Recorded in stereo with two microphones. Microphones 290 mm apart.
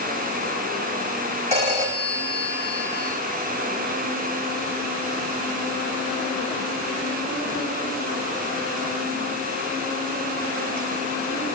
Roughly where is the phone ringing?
Right.